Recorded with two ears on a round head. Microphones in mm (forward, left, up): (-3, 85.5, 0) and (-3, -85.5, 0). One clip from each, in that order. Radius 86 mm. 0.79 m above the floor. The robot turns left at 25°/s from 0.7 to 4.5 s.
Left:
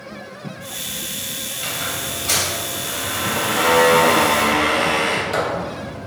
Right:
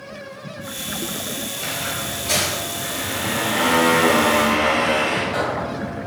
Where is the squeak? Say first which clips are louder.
Left 1 dB; 165° left, 2.5 m; by 6.1 s 90° left, 2.5 m.